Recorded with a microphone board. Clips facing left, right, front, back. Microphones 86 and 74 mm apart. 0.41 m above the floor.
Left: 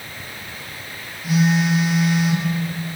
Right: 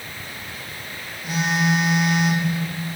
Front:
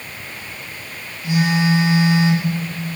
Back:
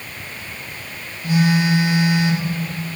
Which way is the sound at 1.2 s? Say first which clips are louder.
Left 3 dB, even; 175° left.